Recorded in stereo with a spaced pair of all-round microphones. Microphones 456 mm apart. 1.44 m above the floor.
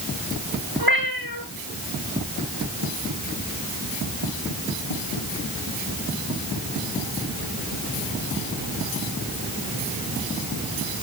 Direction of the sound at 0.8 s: 50° right (ahead or behind).